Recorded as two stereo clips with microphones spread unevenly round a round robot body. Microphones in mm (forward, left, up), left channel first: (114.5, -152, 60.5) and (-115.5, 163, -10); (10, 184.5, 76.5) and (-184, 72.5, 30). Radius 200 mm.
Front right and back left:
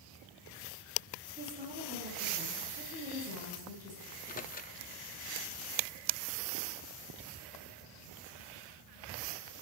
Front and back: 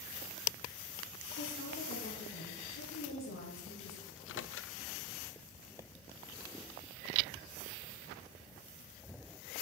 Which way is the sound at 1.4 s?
55° left.